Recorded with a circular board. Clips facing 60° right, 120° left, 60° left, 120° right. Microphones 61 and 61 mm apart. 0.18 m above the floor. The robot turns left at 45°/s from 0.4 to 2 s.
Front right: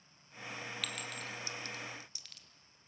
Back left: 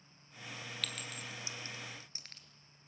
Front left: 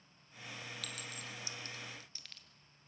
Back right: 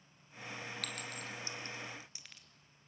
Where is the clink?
140° right, 2.0 m; by 2.4 s 165° left, 2.0 m.